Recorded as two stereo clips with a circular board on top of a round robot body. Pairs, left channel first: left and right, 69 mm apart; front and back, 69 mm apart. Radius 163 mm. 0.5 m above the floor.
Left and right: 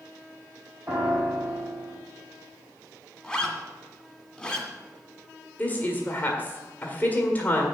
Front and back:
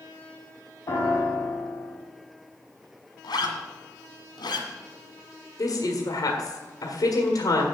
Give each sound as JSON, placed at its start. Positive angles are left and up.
{"t": 0.9, "sound": "a piano", "azimuth_deg": -40, "distance_m": 2.5}
{"t": 3.2, "sound": "a zipper", "azimuth_deg": 5, "distance_m": 1.8}
{"t": 5.6, "sound": "a woman speaking", "azimuth_deg": 20, "distance_m": 1.8}